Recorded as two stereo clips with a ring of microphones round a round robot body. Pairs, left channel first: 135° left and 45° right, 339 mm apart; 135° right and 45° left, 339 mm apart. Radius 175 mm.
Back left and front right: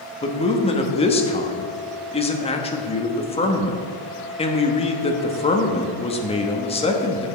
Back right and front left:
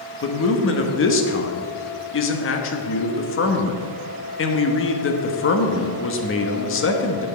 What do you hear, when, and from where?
0.2 s a man speaking: 160° right, 1.1 m